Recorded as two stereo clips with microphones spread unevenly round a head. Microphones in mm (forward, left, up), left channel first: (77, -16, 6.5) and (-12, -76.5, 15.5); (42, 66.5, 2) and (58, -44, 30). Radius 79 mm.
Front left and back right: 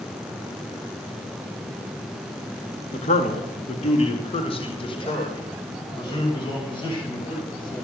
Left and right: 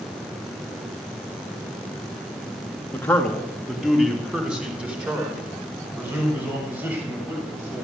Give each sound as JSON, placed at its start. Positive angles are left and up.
{"t": 2.9, "sound": "a man speaking", "azimuth_deg": 25, "distance_m": 2.0}